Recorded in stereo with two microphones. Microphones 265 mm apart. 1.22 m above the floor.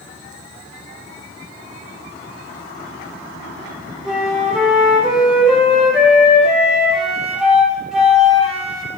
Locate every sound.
4.0 s a flute: centre (ahead or behind), 2.5 m